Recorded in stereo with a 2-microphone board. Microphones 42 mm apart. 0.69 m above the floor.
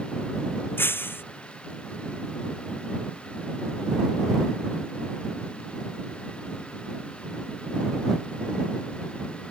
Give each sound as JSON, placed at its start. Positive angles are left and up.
{"t": 0.8, "sound": "breaking glass", "side_deg": 60}